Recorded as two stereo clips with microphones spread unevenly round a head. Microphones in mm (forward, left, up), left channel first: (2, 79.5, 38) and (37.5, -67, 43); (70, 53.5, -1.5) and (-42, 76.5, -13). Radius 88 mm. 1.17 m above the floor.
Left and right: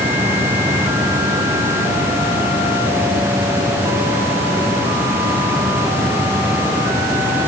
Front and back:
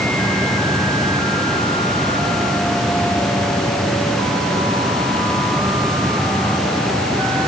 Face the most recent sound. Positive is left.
No sound to turn to.